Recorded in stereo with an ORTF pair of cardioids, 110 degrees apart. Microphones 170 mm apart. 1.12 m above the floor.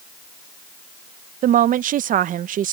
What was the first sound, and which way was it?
A woman speaking, 50° right.